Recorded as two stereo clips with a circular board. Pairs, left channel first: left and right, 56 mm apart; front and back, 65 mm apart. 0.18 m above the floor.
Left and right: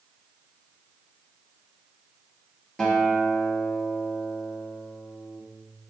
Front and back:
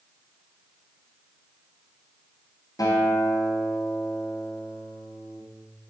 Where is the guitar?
15° left, 2 m.